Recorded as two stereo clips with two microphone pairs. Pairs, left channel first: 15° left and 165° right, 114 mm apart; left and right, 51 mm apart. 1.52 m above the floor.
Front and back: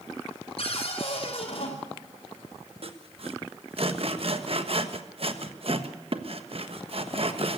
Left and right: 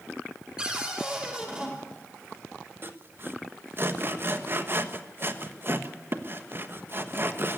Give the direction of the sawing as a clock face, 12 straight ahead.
4 o'clock.